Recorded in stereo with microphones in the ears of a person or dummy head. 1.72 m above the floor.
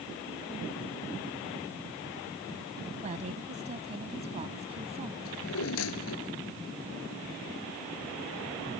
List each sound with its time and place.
3.0 s a woman speaking: 35° right (ahead or behind); by 5.2 s 30° right (ahead or behind)
5.2 s a drawer: 85° left